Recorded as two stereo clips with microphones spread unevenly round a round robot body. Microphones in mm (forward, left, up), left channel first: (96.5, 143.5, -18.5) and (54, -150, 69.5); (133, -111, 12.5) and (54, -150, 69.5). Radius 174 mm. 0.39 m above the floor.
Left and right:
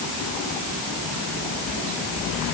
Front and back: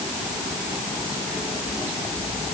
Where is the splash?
No splash in this recording.